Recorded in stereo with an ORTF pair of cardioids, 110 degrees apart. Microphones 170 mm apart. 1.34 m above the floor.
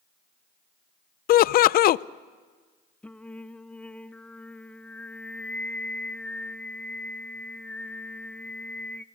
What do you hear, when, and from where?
1.3 s laughter: 60° left, 0.6 m
3.0 s singing: 5° left, 0.7 m